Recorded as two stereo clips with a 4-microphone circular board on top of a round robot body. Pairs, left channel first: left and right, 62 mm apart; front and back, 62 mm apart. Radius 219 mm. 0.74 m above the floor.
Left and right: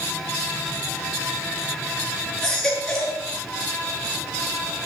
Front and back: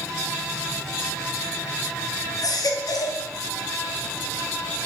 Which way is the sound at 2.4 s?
5° left.